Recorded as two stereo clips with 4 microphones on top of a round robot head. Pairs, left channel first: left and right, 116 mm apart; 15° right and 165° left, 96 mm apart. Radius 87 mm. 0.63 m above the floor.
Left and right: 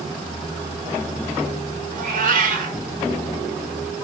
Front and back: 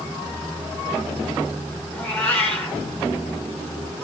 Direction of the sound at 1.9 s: 90° right.